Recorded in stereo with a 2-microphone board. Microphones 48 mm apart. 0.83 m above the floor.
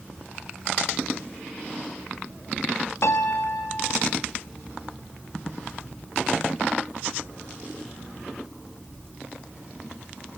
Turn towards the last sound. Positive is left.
turn(degrees=70)  # may be behind; listen again after turning